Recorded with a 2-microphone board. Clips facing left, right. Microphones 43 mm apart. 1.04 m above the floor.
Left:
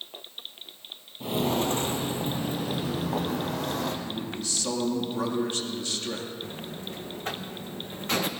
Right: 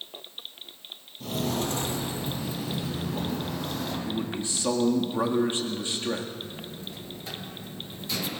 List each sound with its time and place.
1.2 s footsteps: 25° left (ahead or behind), 1.1 m; by 4.0 s 65° left (ahead or behind), 2.5 m
4.0 s a man speaking: 25° right (ahead or behind), 1.8 m
6.4 s a buzzer: 50° left (ahead or behind), 0.8 m